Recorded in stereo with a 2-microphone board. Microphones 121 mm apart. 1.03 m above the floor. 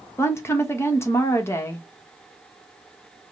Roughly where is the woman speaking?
Left.